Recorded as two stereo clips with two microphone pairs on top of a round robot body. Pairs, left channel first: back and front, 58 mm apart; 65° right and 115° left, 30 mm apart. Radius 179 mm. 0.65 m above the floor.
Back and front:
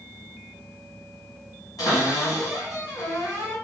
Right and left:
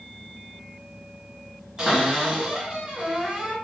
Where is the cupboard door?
175° left, 1.2 m.